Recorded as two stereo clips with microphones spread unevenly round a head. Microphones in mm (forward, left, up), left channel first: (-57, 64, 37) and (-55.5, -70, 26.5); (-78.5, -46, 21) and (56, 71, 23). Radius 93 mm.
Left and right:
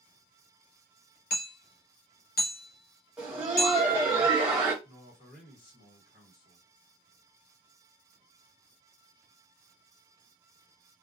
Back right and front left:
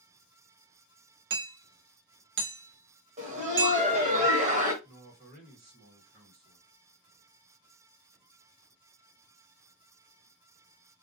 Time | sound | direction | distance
1.3 | hammering | 65° left | 0.7 m
3.2 | laughter | 10° right | 0.8 m
4.8 | a man speaking | 75° left | 1.3 m